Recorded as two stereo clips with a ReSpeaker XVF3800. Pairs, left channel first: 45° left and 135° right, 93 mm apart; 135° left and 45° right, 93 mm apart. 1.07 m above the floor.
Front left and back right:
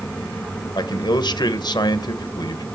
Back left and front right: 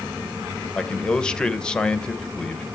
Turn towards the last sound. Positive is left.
turn(degrees=55)